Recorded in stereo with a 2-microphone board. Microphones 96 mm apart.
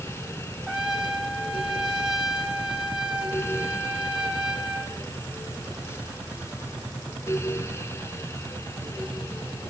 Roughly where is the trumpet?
Centre.